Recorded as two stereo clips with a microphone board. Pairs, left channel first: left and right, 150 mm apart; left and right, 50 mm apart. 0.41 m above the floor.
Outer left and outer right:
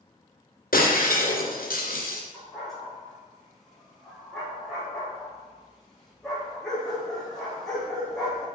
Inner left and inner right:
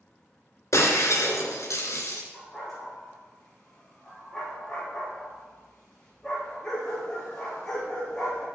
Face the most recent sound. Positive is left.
turn(degrees=5)  # may be behind; listen again after turning